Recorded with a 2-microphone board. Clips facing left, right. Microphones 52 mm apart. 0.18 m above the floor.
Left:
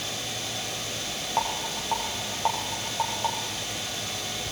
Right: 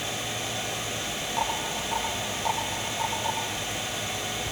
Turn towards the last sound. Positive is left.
turn(degrees=45)  # may be behind; listen again after turning